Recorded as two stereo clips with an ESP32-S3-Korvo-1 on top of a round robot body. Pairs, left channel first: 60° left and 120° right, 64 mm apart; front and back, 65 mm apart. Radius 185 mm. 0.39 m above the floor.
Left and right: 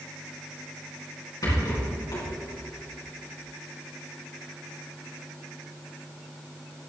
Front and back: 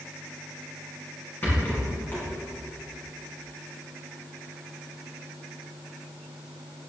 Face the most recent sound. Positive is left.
turn(degrees=60)